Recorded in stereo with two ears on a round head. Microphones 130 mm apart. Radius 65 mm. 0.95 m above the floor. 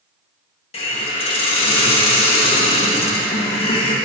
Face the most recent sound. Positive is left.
turn(degrees=40)  # may be behind; listen again after turning